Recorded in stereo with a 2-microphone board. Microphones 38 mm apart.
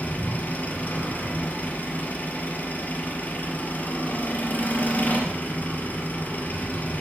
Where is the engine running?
45° left (ahead or behind), 3.5 m.